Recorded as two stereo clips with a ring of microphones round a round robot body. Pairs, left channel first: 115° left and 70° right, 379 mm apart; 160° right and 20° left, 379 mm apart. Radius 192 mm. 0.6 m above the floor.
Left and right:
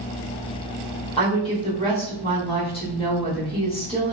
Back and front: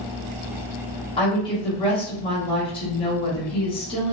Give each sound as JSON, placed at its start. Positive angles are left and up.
{"t": 1.2, "sound": "a woman speaking", "azimuth_deg": 155, "distance_m": 1.0}